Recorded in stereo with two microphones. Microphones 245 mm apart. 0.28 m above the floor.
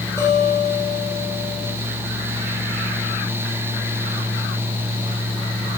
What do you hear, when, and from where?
0.2 s a guitar: 10° left (ahead or behind), 2 m